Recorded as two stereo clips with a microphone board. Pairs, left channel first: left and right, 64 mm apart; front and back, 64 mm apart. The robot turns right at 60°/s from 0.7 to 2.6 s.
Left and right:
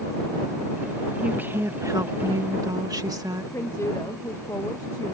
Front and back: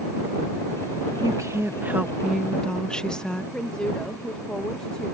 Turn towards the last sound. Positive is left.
turn(degrees=75)